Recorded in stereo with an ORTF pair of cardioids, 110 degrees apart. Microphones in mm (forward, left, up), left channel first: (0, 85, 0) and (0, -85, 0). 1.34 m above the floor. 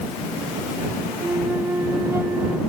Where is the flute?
15° right.